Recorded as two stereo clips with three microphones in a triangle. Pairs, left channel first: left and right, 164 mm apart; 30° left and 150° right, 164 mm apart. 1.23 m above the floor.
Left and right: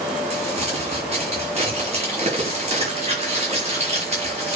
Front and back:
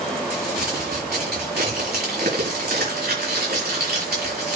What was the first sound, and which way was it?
Crumpling, 140° right.